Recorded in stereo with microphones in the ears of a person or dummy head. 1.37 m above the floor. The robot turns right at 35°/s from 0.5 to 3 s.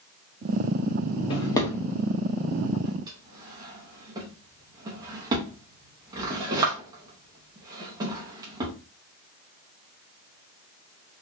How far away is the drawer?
About 0.8 m.